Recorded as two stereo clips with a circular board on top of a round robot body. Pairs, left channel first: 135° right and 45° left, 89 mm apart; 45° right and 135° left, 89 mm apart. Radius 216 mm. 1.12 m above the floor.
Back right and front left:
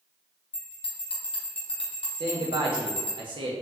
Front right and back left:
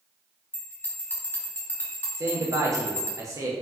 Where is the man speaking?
80° left, 0.5 m.